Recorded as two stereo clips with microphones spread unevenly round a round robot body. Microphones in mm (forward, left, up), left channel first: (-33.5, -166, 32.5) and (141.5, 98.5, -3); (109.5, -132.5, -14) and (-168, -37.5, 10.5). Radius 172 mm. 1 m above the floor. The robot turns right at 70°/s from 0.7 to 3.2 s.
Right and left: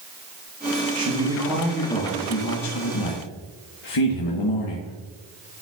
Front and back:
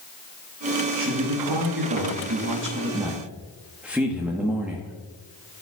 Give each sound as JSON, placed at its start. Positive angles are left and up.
{"t": 0.9, "sound": "a man speaking", "azimuth_deg": 90, "distance_m": 1.2}